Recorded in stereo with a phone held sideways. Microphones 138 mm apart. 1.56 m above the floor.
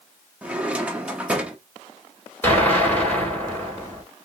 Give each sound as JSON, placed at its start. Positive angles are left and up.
{"t": 0.4, "sound": "a drawer", "side_deg": -10, "distance_m": 0.9}
{"t": 2.4, "sound": "an explosion", "side_deg": 15, "distance_m": 3.0}